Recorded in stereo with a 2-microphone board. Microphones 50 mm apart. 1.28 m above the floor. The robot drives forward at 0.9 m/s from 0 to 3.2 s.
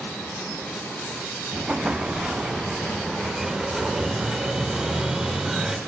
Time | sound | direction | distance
1.5 | an explosion | 20° right (ahead or behind) | 0.8 m